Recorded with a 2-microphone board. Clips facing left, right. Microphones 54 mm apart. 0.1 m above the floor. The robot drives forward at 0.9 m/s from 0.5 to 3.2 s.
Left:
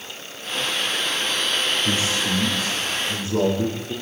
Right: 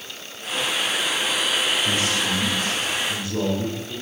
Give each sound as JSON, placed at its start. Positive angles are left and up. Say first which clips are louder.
{"t": 1.9, "sound": "a man speaking", "louder": "even", "side_deg": 30, "distance_m": 9.0}